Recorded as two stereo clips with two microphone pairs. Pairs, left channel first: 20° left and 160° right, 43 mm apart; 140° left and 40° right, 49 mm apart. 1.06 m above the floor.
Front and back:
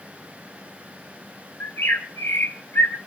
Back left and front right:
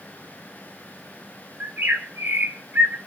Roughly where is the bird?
Ahead.